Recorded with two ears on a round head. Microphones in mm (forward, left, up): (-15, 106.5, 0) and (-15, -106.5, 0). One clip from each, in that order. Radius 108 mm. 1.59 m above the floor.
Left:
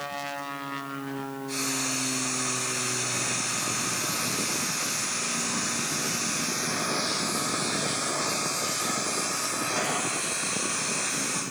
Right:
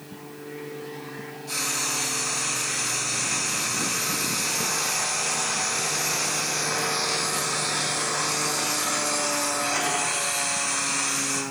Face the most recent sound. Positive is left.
turn(degrees=-70)  # may be behind; listen again after turning